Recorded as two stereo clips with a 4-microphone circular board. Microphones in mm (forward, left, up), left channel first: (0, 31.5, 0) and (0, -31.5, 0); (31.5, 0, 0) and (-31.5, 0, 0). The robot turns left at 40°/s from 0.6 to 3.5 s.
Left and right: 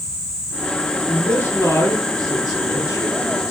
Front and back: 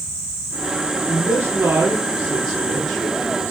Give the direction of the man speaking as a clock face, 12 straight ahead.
7 o'clock.